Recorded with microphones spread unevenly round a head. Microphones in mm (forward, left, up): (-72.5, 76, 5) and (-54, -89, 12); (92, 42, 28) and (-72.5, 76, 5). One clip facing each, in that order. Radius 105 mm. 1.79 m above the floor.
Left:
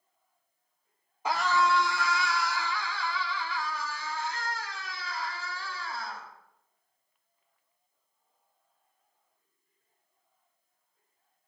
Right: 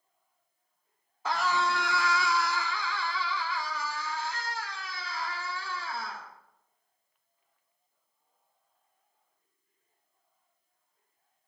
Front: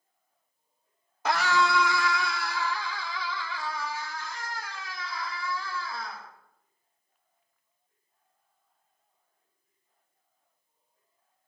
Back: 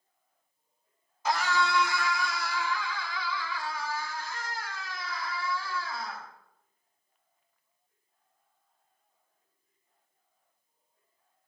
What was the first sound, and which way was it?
A scream, 15° left.